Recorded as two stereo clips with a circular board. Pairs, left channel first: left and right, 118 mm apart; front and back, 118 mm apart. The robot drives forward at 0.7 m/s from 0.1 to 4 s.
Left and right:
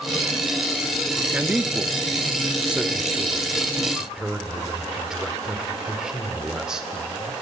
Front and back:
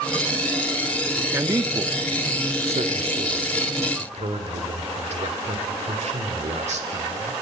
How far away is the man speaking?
About 0.7 m.